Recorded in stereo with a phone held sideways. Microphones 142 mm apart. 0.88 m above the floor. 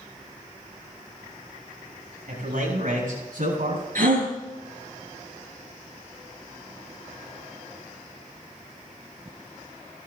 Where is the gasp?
85° right, 5.5 m.